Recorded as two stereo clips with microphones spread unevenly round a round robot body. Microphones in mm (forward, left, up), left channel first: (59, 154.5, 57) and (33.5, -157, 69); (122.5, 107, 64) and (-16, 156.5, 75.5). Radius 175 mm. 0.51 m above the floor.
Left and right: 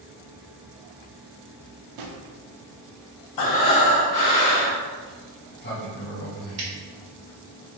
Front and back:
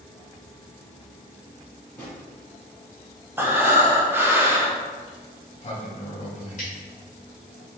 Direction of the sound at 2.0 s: 100° right.